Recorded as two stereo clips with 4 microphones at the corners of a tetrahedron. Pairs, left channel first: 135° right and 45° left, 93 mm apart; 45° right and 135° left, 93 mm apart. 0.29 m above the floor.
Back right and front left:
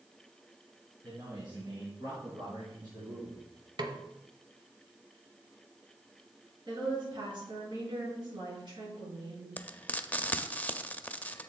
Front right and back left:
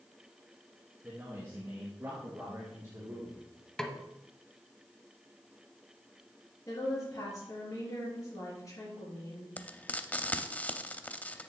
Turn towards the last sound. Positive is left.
turn(degrees=-85)